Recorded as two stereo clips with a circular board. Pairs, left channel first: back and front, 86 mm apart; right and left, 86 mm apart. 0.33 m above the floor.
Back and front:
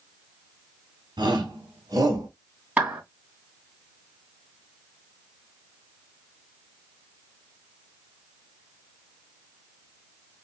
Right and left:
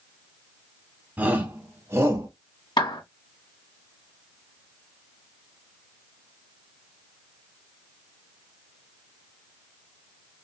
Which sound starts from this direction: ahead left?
A shout, at 1.2 s.